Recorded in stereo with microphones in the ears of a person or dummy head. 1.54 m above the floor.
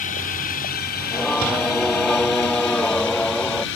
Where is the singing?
5° left (ahead or behind).